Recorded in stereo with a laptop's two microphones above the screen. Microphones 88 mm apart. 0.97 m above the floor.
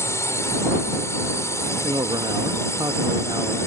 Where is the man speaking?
60° right (ahead or behind).